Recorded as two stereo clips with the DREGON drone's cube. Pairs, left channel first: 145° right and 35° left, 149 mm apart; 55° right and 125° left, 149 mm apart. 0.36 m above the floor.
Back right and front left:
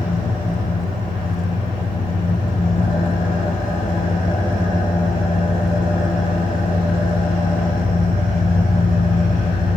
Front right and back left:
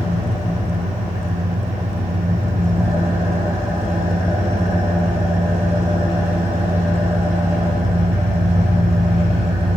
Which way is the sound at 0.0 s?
165° right.